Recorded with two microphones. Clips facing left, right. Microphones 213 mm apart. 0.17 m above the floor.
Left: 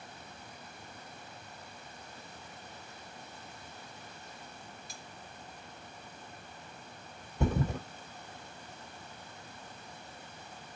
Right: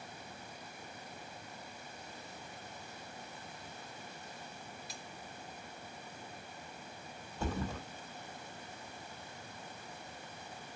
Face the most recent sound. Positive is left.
turn(degrees=60)  # may be behind; listen again after turning